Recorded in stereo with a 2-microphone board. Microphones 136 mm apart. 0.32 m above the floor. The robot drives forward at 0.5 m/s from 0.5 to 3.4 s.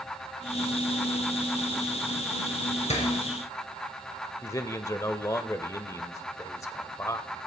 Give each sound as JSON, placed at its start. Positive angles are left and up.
{"t": 2.9, "sound": "a door slam", "side_deg": 55, "distance_m": 4.0}
{"t": 4.4, "sound": "a man speaking", "side_deg": 25, "distance_m": 0.9}